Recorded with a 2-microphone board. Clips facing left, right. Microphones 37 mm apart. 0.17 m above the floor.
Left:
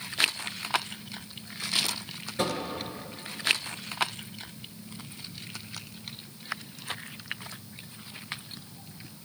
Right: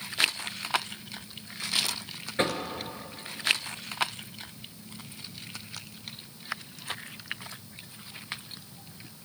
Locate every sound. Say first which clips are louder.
2.4 s knocking: right 2 dB; 40° right (ahead or behind), 1.6 m